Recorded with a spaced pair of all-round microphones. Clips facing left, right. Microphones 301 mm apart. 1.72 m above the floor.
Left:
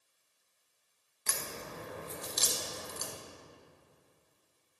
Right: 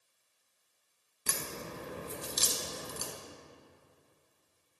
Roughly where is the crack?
Right.